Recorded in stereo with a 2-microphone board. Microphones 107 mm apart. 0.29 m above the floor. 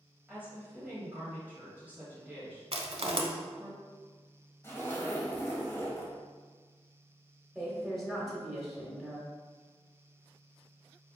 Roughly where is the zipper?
Left.